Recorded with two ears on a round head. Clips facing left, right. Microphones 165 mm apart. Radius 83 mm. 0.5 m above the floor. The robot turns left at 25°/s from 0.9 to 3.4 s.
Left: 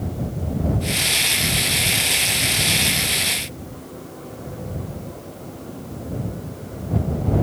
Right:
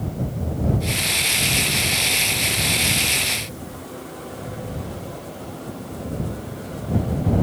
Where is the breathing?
I don't hear breathing.